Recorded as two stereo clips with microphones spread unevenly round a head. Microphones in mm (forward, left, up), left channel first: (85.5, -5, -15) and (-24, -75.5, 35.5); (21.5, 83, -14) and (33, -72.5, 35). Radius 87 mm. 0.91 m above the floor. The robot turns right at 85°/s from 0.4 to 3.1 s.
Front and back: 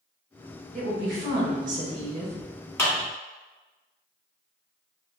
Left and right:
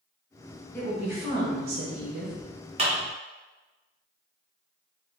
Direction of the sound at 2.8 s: 30° right.